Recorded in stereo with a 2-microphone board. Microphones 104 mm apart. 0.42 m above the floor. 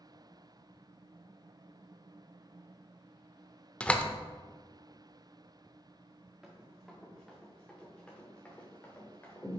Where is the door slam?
15° left (ahead or behind), 0.6 m.